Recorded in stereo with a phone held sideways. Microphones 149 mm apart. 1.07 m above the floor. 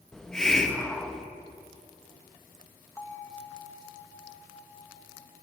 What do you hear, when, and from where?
0.1 s a hiss: 5° left (ahead or behind), 0.9 m
3.0 s a bell: 15° left (ahead or behind), 1.3 m